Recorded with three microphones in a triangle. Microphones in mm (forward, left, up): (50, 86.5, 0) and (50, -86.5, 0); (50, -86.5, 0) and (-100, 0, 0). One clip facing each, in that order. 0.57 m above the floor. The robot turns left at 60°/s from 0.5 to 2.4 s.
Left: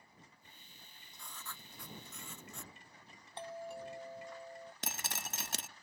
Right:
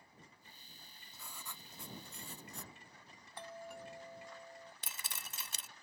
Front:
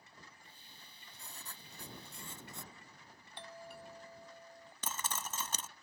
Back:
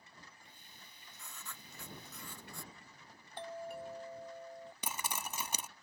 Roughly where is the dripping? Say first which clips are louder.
Left 8 dB, even; left.